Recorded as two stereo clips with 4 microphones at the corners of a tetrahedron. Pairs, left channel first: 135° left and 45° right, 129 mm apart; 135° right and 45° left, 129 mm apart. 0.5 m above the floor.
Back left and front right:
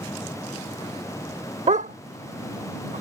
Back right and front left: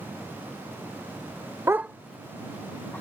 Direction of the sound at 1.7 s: 25° right.